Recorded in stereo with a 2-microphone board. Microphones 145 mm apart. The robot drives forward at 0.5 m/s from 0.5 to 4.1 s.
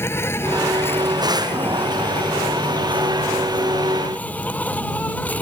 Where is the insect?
15° left (ahead or behind); by 5.4 s 10° left (ahead or behind).